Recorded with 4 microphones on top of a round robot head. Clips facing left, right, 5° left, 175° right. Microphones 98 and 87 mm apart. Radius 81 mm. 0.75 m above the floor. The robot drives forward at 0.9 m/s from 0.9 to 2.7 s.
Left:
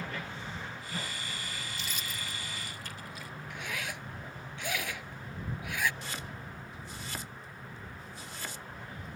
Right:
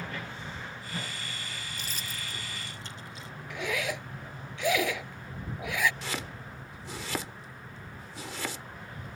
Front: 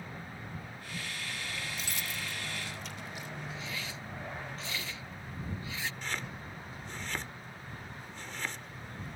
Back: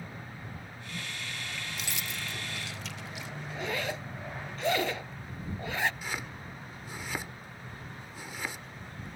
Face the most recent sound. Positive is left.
turn(degrees=-90)